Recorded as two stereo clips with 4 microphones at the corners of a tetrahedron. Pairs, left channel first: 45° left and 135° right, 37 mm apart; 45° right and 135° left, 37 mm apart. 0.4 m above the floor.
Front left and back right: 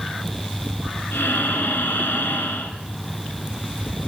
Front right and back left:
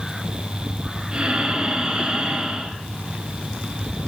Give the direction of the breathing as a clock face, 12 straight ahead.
10 o'clock.